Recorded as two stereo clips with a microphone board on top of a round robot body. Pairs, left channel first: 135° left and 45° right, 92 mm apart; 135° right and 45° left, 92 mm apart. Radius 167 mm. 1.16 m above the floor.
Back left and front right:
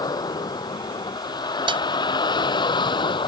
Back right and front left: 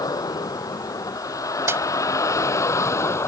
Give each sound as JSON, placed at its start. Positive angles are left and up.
{"t": 0.0, "sound": "a vehicle", "azimuth_deg": 175}
{"t": 1.7, "sound": "a snare drum", "azimuth_deg": -20}